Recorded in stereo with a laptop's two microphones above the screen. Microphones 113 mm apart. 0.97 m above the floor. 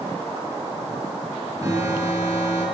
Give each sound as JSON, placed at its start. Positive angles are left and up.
{"t": 1.6, "sound": "an alarm", "side_deg": -25, "distance_m": 7.5}